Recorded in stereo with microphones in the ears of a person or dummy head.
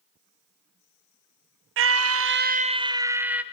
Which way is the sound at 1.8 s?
60° right (ahead or behind).